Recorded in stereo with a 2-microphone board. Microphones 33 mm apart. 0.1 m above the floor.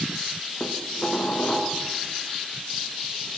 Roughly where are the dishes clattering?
Left.